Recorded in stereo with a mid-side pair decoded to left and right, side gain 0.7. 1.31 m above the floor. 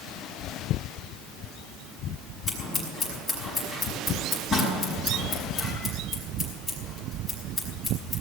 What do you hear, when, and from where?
2.5 s scissors: 15° left, 5.5 m